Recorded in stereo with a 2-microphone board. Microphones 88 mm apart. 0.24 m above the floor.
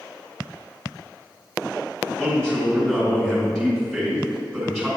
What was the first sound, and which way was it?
A man speaking, 5° left (ahead or behind).